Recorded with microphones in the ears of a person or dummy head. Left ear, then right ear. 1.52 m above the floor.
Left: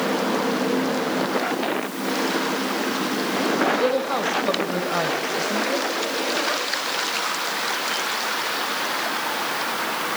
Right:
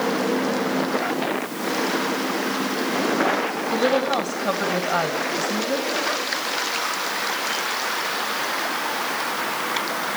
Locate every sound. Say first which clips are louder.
3.7 s a woman speaking: right 1 dB; centre (ahead or behind), 2 m